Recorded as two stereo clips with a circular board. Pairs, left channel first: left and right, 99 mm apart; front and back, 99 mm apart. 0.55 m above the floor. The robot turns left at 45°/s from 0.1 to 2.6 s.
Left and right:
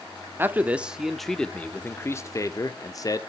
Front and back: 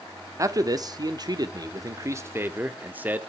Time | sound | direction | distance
0.4 | a man speaking | 145° right | 1.0 m